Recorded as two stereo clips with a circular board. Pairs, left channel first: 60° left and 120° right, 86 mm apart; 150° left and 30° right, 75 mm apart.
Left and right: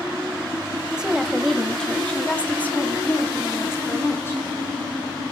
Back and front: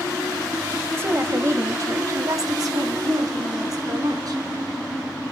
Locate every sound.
1.0 s a woman speaking: 50° right, 1.0 m; by 4.4 s straight ahead, 2.5 m